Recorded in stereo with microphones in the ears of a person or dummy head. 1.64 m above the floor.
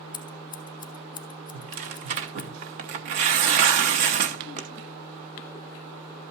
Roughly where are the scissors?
Left.